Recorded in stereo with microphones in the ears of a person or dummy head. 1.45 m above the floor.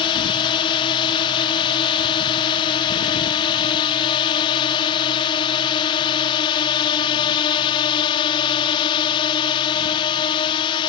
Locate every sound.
0.0 s a drone: 25° left (ahead or behind)